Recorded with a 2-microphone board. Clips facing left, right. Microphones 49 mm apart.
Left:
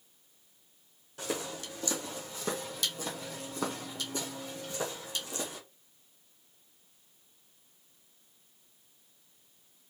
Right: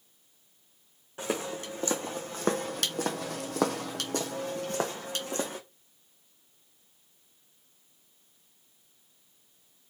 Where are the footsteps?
25° right (ahead or behind), 1.4 m; by 5.6 s 45° right (ahead or behind), 1.5 m.